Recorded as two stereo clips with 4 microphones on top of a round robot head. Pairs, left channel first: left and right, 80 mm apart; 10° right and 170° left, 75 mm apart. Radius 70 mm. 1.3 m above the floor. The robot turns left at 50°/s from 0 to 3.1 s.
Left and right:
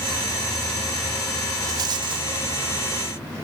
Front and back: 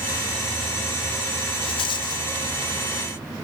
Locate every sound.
1.6 s a rattle: 30° right, 0.5 m; by 2.3 s 60° right, 0.5 m